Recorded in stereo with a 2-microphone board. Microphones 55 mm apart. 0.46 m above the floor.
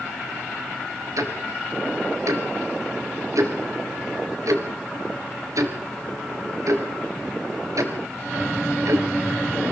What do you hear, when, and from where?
1.2 s ticking: 85° right, 3 m